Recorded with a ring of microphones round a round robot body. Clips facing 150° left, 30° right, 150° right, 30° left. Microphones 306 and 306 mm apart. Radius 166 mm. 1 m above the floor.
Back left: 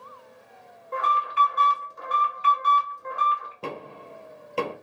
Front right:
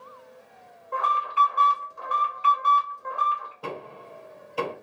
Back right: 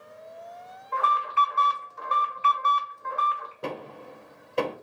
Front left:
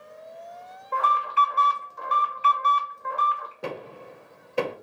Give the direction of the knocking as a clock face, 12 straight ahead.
8 o'clock.